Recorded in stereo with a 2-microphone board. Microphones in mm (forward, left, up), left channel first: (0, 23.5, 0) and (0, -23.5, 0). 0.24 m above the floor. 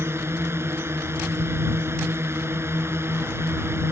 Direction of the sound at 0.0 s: 65° right (ahead or behind).